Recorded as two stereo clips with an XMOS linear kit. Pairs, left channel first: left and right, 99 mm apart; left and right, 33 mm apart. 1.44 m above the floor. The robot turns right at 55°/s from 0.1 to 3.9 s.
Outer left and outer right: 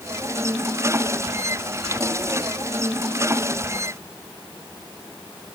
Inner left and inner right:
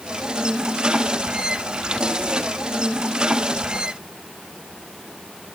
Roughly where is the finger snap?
I don't hear a finger snap.